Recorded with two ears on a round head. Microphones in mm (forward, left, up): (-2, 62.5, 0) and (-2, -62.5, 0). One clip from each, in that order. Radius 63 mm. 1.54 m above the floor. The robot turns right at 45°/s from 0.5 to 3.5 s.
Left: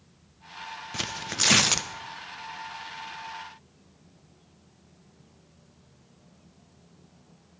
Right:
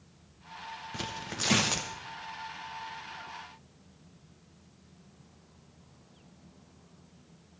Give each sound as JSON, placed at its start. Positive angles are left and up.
{"t": 0.9, "sound": "tearing paper", "azimuth_deg": 85, "distance_m": 0.7}